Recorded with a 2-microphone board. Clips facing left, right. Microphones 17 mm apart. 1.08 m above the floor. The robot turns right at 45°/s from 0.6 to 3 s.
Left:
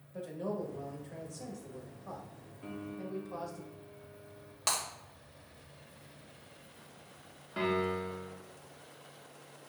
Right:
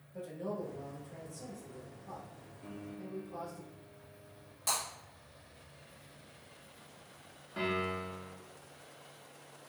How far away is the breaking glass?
About 1.6 m.